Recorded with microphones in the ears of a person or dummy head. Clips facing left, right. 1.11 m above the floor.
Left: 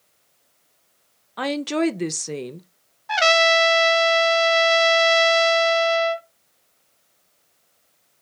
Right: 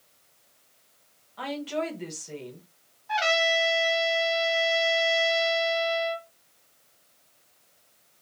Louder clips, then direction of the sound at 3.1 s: Left 7 dB; 75° left (ahead or behind).